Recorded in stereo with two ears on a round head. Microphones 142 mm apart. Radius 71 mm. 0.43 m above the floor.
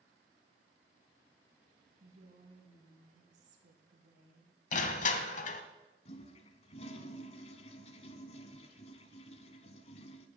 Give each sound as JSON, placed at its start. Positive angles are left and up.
{"t": 2.0, "sound": "a woman speaking", "side_deg": -45, "distance_m": 3.0}
{"t": 4.7, "sound": "crushing", "side_deg": 50, "distance_m": 1.1}
{"t": 6.0, "sound": "a toilet flushing", "side_deg": 40, "distance_m": 0.9}